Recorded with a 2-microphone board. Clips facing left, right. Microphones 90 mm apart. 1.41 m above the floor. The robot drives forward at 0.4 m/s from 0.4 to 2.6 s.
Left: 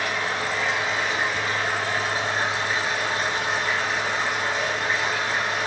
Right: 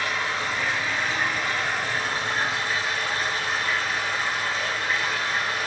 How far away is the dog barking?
I don't hear a dog barking.